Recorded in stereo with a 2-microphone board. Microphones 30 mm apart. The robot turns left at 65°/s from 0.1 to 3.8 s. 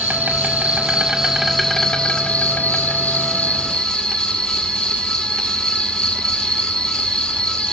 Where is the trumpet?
No trumpet in this recording.